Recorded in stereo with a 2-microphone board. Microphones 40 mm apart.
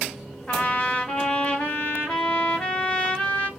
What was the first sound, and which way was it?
A trumpet, 35° left (ahead or behind).